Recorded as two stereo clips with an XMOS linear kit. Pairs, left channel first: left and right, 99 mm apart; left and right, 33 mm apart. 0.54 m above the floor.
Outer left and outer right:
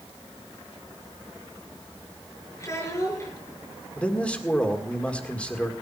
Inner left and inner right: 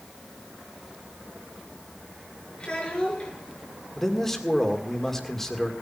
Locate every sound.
2.6 s a child speaking: 30° left (ahead or behind), 6 m
4.0 s a man speaking: 10° left (ahead or behind), 1.8 m